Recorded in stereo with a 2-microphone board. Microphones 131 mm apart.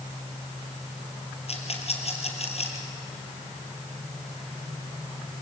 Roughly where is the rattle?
Left.